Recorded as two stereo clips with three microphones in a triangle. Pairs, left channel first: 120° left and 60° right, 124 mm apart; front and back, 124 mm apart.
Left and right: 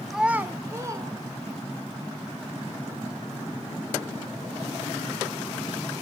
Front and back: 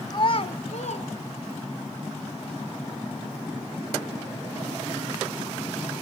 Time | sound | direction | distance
0.1 | a child speaking | 30° left | 0.7 m